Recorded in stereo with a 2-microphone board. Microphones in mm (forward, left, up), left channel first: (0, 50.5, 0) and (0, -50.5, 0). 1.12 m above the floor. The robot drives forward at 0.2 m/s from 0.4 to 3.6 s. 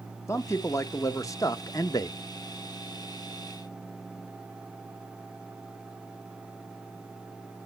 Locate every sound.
0.3 s a man speaking: 30° left (ahead or behind), 1.1 m; by 2.2 s 40° left (ahead or behind), 0.8 m